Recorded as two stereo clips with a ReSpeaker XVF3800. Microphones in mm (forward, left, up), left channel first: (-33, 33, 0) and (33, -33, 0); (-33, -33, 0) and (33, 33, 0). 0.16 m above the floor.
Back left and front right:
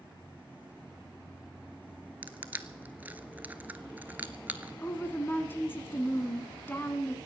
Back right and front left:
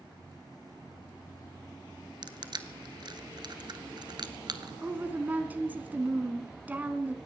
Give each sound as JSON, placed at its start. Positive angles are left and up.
{"t": 2.2, "sound": "crushing", "azimuth_deg": 25, "distance_m": 0.8}
{"t": 4.8, "sound": "a woman speaking", "azimuth_deg": 95, "distance_m": 1.2}